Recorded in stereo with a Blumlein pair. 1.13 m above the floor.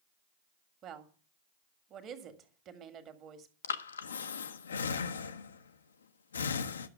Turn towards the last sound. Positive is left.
turn(degrees=70)